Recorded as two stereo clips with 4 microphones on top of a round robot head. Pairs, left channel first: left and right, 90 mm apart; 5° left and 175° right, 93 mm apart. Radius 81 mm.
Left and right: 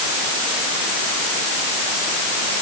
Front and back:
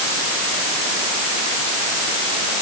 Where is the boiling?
I don't hear boiling.